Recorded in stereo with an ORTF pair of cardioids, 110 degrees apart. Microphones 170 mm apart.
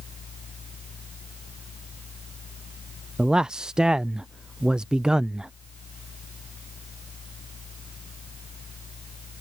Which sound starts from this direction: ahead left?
A fan, at 0.0 s.